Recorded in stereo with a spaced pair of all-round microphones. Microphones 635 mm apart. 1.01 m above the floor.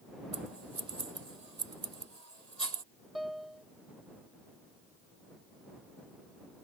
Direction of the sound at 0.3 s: 80° right.